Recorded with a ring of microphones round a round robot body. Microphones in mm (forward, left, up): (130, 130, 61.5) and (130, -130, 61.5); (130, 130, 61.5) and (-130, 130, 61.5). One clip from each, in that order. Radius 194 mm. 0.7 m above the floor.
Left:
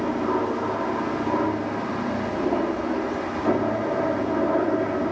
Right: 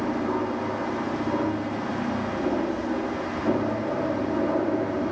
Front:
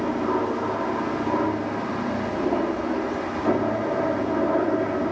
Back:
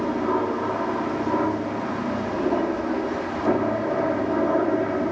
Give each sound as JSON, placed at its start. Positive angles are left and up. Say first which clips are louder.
{"t": 0.0, "sound": "an aircraft", "louder": "left 3 dB, back 1 dB", "azimuth_deg": 120}